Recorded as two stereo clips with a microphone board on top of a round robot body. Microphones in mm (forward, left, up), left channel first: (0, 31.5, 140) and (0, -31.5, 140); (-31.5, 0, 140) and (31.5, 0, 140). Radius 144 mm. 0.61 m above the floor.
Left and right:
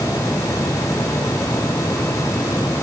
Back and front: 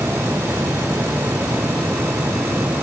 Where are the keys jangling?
I don't hear keys jangling.